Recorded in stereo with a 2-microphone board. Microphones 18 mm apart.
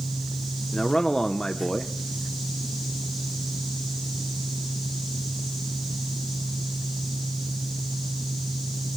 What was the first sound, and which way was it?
A man speaking, 30° left (ahead or behind).